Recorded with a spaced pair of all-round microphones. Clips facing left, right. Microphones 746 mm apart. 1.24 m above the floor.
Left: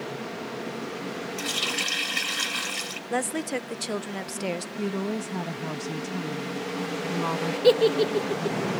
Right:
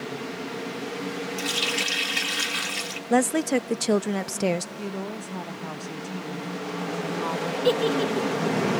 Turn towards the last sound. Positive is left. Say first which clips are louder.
# left 4 dB
turn(degrees=50)  # may be behind; listen again after turning